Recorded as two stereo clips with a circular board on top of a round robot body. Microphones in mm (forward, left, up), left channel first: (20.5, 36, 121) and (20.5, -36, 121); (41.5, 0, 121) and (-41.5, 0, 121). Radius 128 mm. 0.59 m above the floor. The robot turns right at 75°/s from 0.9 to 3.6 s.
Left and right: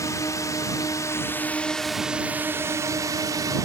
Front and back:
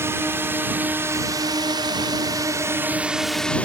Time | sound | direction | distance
0.0 | a drone | 125° left | ?